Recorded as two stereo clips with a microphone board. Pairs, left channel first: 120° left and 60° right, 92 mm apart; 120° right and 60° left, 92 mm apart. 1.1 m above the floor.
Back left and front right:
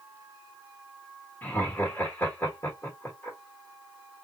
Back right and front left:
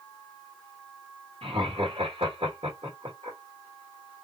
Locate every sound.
1.4 s laughter: 55° left, 1.6 m